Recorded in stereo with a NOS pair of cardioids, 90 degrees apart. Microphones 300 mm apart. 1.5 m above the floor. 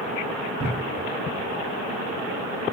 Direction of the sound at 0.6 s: 20° right.